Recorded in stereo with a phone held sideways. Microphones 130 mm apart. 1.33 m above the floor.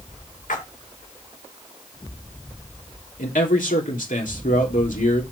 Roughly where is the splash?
Left.